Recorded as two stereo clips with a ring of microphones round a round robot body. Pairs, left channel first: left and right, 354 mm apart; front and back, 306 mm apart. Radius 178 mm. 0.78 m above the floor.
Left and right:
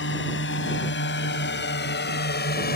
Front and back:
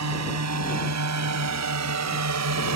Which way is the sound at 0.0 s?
150° left.